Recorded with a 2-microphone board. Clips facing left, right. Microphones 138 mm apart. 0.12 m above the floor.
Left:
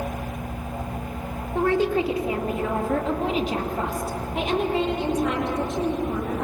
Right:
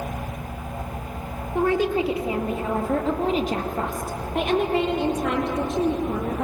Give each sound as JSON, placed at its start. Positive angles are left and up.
{"t": 1.6, "sound": "a woman speaking", "side_deg": -15, "distance_m": 3.5}